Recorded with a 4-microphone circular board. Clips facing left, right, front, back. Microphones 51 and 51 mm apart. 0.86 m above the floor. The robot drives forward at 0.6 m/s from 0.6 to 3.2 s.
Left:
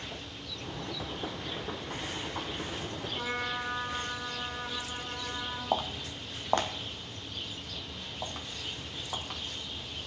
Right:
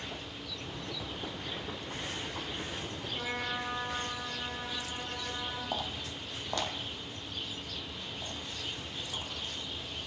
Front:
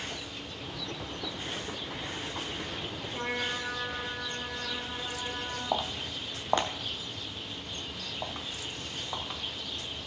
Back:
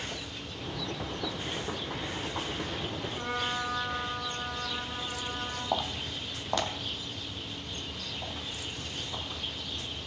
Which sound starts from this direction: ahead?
A trumpet, at 3.1 s.